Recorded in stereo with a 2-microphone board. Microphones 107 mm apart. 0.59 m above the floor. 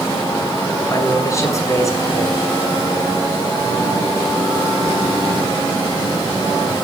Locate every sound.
0.9 s a man speaking: 30° left (ahead or behind), 7 m